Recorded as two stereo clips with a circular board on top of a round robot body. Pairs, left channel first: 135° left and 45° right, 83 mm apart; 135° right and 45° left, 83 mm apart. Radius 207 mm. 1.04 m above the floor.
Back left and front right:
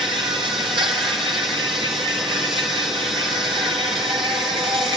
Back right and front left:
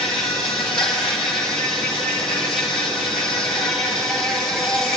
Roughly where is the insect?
Ahead right.